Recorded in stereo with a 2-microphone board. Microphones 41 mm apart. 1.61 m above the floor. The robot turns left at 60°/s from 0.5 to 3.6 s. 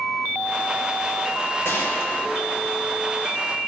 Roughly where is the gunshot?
Left.